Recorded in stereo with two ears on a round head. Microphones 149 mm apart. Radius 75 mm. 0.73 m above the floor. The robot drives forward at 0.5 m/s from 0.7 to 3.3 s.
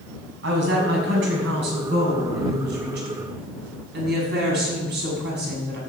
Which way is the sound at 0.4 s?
80° right.